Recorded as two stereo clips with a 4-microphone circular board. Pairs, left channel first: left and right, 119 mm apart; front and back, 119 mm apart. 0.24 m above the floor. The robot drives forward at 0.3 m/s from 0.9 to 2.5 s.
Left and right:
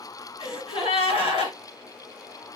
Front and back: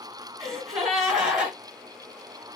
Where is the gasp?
95° left, 2.0 m; by 1.6 s 100° left, 2 m.